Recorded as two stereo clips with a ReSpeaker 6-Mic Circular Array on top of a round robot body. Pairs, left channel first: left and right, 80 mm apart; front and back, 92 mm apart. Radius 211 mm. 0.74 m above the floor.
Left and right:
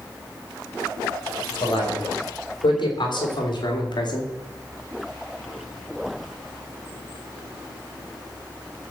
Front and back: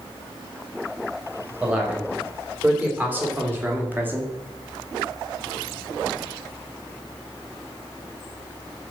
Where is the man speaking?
105° left, 4 m; by 4.3 s 110° left, 2.5 m.